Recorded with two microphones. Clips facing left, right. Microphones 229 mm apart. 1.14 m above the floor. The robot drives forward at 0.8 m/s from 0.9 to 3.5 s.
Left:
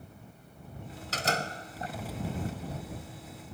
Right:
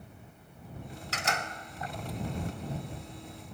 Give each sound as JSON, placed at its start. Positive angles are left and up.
{"t": 1.1, "sound": "a door slam", "side_deg": 40}